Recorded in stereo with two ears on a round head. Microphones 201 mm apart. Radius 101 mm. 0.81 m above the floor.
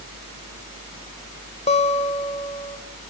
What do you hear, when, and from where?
1.7 s a guitar: 30° left (ahead or behind), 1.8 m